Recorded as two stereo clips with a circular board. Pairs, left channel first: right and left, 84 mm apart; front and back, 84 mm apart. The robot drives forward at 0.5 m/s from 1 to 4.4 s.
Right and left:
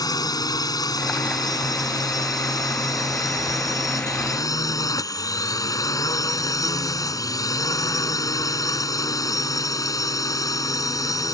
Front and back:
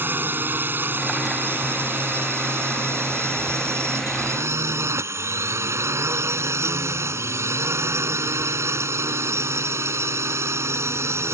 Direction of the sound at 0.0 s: 120° right.